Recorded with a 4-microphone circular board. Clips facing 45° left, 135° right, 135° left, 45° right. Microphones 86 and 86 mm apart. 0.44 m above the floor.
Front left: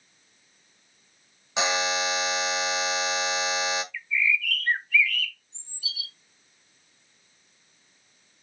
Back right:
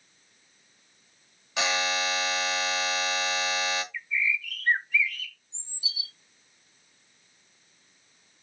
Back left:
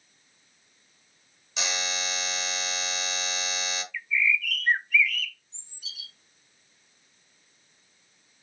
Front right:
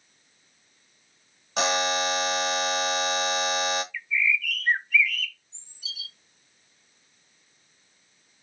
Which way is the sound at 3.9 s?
135° right.